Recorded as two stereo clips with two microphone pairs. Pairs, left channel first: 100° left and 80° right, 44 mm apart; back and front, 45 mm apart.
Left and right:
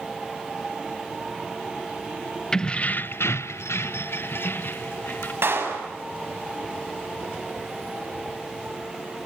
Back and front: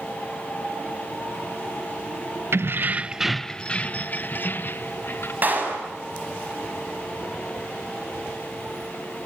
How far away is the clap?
About 6.5 m.